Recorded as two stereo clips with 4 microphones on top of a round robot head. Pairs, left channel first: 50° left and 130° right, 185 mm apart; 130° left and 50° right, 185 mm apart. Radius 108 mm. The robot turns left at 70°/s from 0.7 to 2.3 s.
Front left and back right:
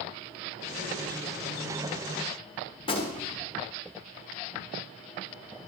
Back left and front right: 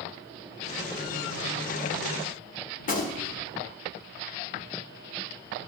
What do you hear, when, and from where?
2.8 s a gunshot: 105° left, 1.6 m